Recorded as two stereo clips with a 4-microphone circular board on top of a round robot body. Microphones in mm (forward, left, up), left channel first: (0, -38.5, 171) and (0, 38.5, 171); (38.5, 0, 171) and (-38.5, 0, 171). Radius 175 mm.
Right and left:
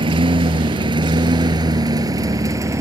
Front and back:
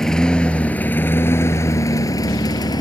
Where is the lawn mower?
85° left; by 2.8 s 35° left.